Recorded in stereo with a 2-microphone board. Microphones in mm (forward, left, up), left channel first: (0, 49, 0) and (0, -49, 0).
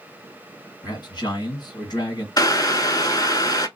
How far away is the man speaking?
About 2 m.